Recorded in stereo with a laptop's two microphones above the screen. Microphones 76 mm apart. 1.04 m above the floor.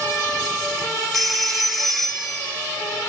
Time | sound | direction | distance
1.1 | a phone ringing | centre (ahead or behind) | 0.7 m